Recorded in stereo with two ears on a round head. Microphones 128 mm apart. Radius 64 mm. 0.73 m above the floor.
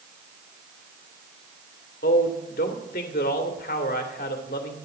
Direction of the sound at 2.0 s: 65° left (ahead or behind).